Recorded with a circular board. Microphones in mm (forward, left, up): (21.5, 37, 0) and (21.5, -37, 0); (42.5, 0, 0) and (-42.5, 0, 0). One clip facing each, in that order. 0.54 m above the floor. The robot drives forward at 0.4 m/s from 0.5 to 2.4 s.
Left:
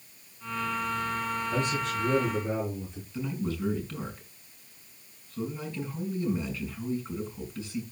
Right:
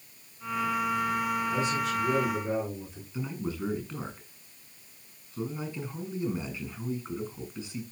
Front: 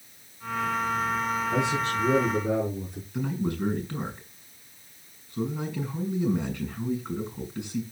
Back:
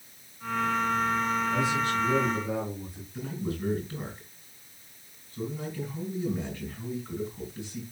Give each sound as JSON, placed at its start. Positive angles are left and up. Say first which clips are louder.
{"t": 1.5, "sound": "a man speaking", "louder": "right 1 dB, front 1 dB", "azimuth_deg": 0, "distance_m": 8.0}
{"t": 3.1, "sound": "a man speaking", "louder": "left 2 dB, front 5 dB", "azimuth_deg": -15, "distance_m": 5.5}